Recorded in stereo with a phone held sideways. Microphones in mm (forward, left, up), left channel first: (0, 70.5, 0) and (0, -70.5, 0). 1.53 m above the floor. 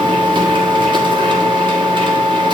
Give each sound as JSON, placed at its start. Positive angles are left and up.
{"t": 0.0, "sound": "a machine running", "side_deg": -35, "distance_m": 1.1}